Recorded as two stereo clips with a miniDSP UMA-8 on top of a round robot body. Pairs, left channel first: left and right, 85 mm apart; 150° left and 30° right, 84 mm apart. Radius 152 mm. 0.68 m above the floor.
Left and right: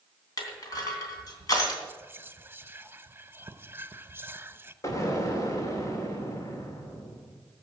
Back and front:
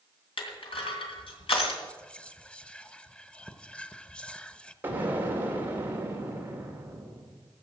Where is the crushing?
140° left, 3 m.